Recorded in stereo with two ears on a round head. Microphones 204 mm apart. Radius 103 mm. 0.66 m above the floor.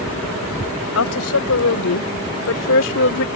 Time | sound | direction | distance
0.9 | a woman speaking | 70° left (ahead or behind) | ?